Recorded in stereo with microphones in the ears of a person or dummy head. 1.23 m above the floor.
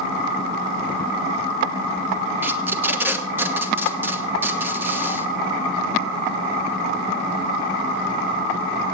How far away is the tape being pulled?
About 1.2 m.